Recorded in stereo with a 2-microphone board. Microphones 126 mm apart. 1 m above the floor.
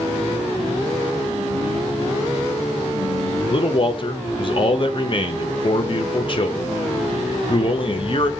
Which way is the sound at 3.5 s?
45° left (ahead or behind).